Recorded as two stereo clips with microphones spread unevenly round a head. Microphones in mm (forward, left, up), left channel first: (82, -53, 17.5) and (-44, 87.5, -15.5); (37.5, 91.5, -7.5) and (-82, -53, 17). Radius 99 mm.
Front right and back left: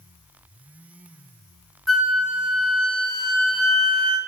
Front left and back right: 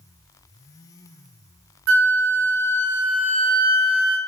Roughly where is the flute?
Behind right.